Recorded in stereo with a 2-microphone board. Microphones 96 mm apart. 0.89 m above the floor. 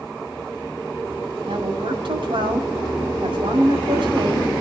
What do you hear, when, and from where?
1.5 s a woman speaking: 65° right (ahead or behind), 7 m